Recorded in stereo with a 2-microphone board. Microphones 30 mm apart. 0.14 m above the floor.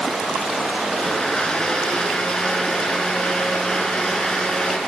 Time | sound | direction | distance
1.0 | a blender | 25° left (ahead or behind) | 1.5 m